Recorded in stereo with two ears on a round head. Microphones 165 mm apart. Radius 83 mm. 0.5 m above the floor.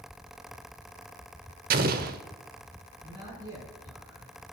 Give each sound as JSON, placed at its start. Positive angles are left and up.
{"t": 1.7, "sound": "an explosion", "side_deg": -50, "distance_m": 0.8}
{"t": 3.0, "sound": "a man speaking", "side_deg": -20, "distance_m": 7.0}